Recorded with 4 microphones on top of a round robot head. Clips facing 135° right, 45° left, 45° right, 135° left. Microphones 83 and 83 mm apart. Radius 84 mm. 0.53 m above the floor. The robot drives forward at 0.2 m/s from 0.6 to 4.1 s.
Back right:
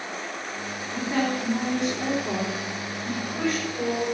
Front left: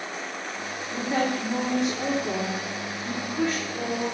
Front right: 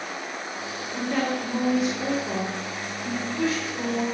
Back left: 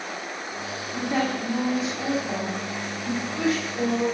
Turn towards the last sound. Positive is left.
turn(degrees=95)